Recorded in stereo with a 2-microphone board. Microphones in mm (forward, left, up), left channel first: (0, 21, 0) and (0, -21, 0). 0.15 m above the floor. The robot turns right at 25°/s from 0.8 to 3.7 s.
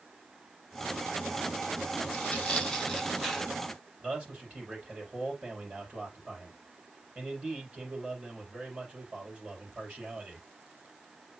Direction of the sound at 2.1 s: 155° left.